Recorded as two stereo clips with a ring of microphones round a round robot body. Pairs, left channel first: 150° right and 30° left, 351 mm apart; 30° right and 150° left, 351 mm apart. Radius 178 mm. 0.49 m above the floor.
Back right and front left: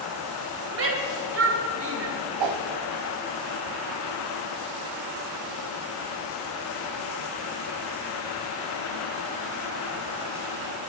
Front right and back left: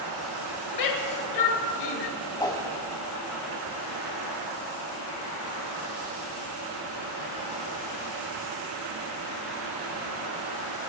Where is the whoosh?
50° left, 1.1 m.